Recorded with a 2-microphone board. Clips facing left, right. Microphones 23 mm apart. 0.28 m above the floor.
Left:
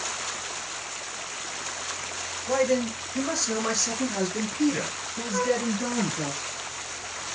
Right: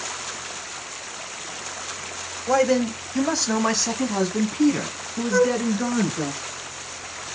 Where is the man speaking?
40° right (ahead or behind), 1.3 m; by 6.3 s 35° right (ahead or behind), 3.5 m.